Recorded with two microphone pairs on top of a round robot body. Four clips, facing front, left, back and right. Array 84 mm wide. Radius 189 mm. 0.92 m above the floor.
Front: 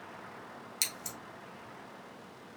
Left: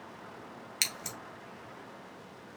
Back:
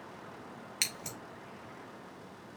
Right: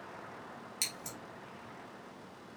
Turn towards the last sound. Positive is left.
turn(degrees=135)